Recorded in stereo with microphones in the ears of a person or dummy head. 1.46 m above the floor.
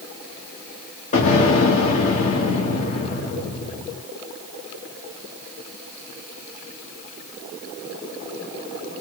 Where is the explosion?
45° left (ahead or behind), 1.5 m.